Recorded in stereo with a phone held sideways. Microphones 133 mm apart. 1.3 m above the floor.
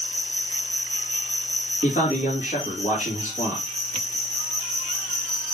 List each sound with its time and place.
0.0 s an insect: 65° left (ahead or behind), 4 m
1.8 s a man speaking: 85° left, 3.5 m